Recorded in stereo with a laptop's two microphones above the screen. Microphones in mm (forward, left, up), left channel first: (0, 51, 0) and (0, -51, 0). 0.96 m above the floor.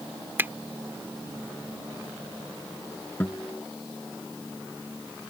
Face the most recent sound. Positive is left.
turn(degrees=15)  # may be behind; listen again after turning